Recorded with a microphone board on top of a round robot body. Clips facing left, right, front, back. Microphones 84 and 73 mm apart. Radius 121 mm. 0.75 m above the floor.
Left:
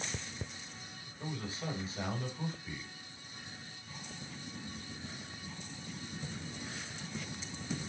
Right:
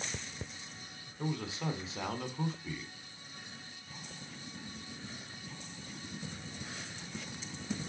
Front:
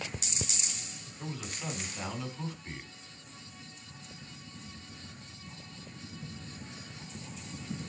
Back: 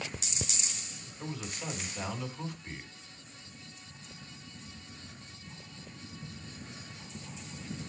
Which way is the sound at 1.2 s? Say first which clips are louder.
Right 4 dB, even; 95° right.